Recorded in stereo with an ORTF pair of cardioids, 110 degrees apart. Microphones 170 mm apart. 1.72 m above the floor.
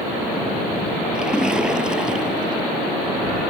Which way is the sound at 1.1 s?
5° right.